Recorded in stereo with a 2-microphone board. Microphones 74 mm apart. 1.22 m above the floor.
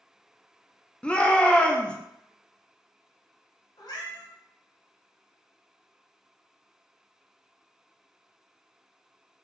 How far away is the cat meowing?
About 1.4 m.